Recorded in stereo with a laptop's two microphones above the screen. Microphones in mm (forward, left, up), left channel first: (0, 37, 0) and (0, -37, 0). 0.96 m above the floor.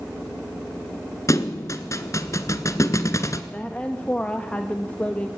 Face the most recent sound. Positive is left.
turn(degrees=15)  # may be behind; listen again after turning